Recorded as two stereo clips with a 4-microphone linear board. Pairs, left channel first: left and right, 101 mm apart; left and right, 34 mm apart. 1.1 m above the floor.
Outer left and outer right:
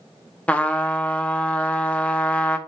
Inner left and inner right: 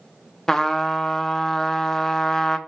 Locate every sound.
0.5 s a trumpet: 15° left (ahead or behind), 0.6 m